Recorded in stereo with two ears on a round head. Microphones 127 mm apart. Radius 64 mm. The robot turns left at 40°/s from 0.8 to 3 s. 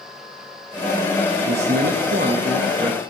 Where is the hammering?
I don't hear hammering.